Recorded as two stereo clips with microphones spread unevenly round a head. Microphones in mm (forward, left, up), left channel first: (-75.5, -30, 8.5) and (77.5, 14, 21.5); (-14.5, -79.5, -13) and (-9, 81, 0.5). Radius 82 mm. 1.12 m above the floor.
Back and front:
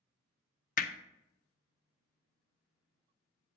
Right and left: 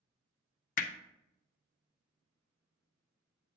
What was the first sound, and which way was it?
Hammering, 130° right.